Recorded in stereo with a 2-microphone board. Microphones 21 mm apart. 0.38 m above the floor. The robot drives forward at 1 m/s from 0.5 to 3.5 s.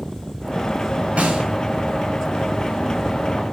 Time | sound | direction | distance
1.2 | a snare drum | 75° right (ahead or behind) | 8 m